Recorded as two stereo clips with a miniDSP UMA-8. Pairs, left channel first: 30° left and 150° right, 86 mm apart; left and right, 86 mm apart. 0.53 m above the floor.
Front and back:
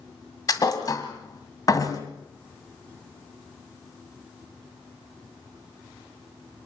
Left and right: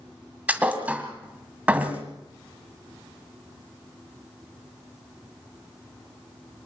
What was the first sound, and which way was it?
A thud, 15° right.